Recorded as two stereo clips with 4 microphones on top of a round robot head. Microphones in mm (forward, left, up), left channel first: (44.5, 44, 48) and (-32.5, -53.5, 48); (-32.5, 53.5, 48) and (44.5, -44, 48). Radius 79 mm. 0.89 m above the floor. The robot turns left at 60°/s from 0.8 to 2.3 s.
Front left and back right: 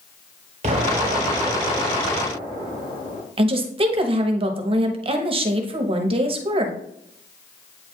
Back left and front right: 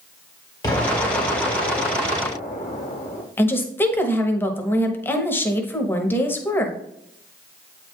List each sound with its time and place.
0.6 s an explosion: 170° right, 1.7 m; by 3.2 s 100° left, 1.7 m
3.4 s a woman speaking: 160° right, 1.2 m